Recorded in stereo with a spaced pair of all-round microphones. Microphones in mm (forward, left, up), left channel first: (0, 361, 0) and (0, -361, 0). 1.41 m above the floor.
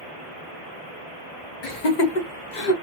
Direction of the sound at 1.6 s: 65° left (ahead or behind).